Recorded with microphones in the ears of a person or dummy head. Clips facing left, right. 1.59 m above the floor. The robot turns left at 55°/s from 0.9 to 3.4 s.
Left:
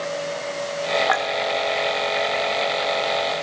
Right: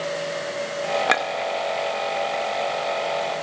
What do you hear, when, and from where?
1.1 s a clink: 40° right (ahead or behind), 1.3 m; by 1.3 s 45° right (ahead or behind), 1.3 m